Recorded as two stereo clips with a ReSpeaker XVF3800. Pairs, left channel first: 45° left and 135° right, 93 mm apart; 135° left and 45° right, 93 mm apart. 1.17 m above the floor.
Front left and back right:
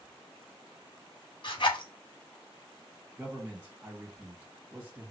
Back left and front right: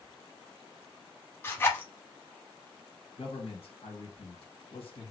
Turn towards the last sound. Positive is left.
turn(degrees=155)